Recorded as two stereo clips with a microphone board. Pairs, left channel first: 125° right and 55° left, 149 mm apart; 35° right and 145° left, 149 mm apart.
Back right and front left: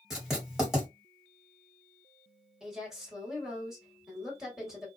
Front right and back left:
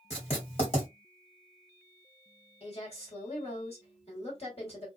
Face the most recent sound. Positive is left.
turn(degrees=-30)